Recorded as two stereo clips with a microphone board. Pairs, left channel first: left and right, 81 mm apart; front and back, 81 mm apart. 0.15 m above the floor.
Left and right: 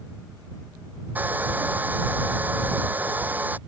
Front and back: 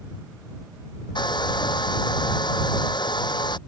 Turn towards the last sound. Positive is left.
turn(degrees=-20)